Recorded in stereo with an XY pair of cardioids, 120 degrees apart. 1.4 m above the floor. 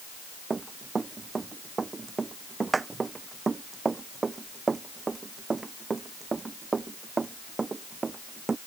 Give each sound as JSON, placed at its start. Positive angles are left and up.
{"t": 0.5, "sound": "running footsteps", "azimuth_deg": -25}